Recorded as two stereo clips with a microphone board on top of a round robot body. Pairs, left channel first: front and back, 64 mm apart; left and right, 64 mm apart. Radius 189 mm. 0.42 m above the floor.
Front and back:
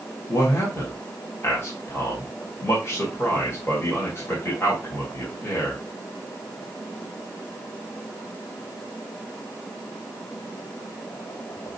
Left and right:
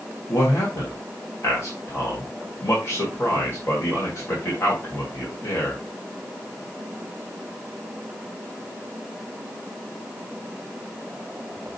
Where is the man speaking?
45° left, 3 m.